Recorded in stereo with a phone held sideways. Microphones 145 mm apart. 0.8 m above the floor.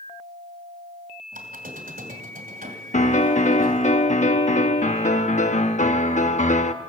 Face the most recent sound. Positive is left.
turn(degrees=55)  # may be behind; listen again after turning